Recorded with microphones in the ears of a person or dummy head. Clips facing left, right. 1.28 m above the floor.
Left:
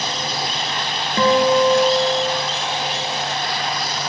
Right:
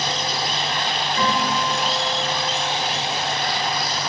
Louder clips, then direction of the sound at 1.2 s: Left 10 dB; 45° left (ahead or behind).